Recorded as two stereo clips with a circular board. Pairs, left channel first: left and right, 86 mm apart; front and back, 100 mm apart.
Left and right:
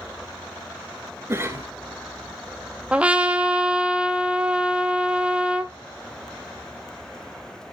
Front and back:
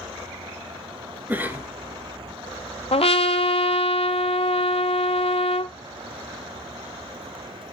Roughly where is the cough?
Behind right.